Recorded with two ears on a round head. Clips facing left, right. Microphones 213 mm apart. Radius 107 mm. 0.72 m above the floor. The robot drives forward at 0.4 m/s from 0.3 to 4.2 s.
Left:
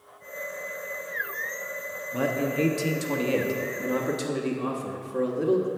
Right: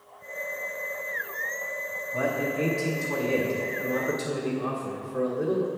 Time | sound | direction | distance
2.1 | a man speaking | 40° left (ahead or behind) | 0.9 m